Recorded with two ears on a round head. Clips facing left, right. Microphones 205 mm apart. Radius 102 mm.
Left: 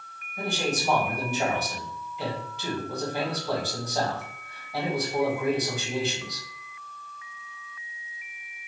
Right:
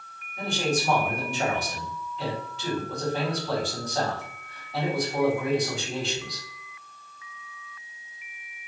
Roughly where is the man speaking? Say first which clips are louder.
Right 2 dB; centre.